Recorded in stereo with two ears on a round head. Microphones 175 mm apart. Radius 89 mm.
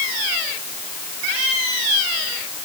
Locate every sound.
Only background noise.